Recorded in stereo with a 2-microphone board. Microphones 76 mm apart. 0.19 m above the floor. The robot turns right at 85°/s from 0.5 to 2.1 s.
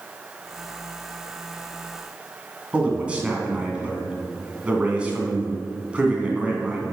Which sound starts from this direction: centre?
A man speaking, at 2.7 s.